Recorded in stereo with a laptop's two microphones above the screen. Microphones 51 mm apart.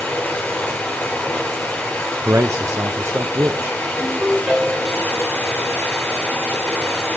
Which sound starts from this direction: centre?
A ringtone, at 4.0 s.